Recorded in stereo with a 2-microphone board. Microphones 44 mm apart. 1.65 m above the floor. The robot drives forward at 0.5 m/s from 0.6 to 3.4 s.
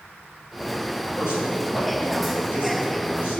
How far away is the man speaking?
About 2.5 m.